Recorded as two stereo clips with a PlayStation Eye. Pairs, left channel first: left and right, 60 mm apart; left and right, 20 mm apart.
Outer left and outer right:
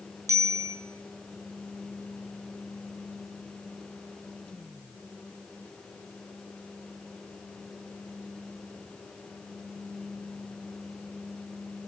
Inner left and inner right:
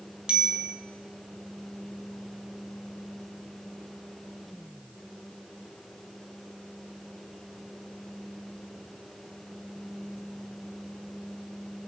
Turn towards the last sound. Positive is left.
turn(degrees=-55)  # may be behind; listen again after turning